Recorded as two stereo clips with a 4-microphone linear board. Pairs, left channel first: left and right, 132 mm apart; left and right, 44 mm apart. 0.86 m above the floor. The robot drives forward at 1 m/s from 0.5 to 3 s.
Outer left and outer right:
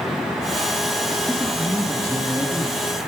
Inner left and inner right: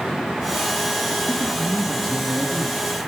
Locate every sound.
1.3 s a woman speaking: 15° left (ahead or behind), 1.0 m; by 2.9 s 5° left (ahead or behind), 2 m